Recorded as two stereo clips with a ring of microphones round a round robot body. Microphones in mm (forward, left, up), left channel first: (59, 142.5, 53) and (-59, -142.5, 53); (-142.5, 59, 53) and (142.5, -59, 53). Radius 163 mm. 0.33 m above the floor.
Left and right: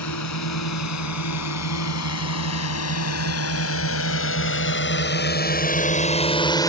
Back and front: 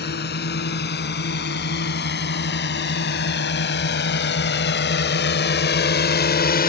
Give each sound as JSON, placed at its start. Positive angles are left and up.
{"t": 0.0, "sound": "a drone", "azimuth_deg": 100}